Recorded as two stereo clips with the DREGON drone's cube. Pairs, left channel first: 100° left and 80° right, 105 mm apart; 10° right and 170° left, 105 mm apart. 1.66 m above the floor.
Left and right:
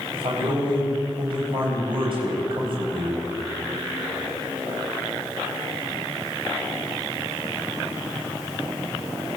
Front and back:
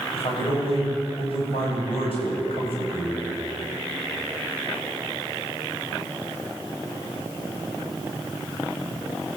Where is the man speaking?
40° right, 8.5 m.